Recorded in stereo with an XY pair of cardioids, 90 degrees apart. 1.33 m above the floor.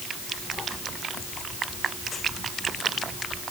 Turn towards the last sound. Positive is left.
No sound to turn to.